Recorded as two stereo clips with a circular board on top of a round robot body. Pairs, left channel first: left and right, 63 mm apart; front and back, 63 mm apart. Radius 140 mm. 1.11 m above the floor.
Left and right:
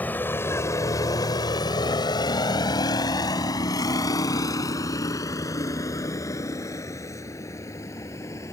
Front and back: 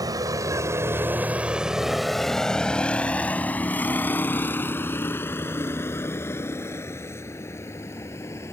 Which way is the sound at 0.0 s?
155° left.